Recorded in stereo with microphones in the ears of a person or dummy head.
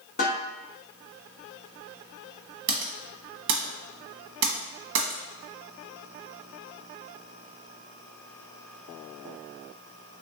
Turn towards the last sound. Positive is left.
turn(degrees=-65)  # may be behind; listen again after turning